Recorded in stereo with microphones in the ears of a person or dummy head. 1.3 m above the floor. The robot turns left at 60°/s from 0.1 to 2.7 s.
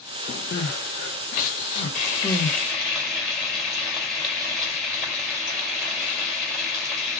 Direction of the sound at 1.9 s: 50° left.